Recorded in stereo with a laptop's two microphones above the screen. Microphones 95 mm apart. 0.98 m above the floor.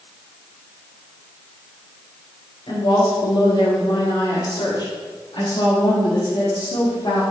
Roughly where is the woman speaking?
Left.